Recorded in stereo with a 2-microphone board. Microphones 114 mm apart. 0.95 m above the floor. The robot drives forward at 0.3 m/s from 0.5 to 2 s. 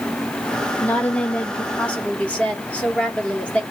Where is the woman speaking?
15° left (ahead or behind), 1.0 m; by 3.6 s 10° left (ahead or behind), 1.3 m.